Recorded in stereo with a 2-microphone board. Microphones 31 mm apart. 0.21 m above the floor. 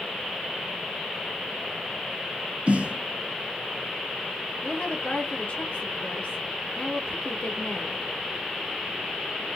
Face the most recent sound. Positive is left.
turn(degrees=60)  # may be behind; listen again after turning